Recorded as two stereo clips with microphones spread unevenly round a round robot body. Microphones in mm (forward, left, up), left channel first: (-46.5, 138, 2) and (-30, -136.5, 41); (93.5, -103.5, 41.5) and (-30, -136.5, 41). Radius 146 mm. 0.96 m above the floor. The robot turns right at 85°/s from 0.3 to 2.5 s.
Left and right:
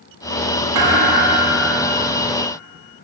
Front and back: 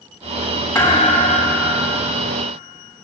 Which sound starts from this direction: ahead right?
A thud, at 0.8 s.